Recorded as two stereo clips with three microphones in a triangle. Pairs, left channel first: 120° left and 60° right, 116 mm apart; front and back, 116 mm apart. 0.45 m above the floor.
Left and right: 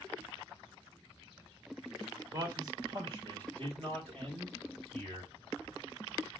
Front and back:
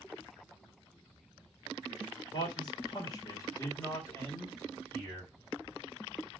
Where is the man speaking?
15° right, 1.9 m; by 5.3 s 70° right, 3.5 m.